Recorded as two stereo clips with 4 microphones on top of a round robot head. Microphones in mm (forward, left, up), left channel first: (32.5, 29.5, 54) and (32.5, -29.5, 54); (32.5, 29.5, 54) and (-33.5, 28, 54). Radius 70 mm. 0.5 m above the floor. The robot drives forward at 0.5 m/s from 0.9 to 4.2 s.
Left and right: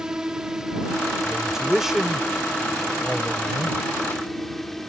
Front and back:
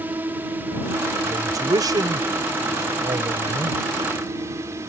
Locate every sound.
0.0 s a drone: 160° right; by 4.9 s 175° left
1.2 s a man speaking: 170° right; by 3.8 s 175° right